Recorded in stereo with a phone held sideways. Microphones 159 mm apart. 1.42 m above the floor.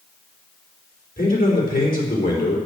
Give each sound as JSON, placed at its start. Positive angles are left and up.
{"t": 1.2, "sound": "a man speaking", "side_deg": 70, "distance_m": 4.0}